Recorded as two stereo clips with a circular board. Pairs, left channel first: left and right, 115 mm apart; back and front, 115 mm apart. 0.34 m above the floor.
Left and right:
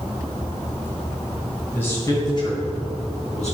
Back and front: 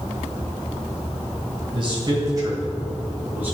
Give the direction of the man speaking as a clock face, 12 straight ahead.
11 o'clock.